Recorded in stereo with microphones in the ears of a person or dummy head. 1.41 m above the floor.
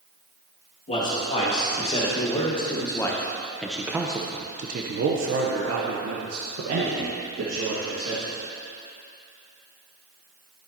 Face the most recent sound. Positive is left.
turn(degrees=-75)  # may be behind; listen again after turning